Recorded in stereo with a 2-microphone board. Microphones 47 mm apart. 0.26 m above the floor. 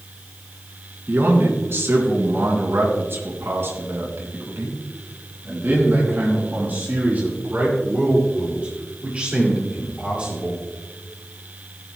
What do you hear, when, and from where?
1.1 s a man speaking: 55° right (ahead or behind), 4 m; by 10.6 s 25° right (ahead or behind), 5.5 m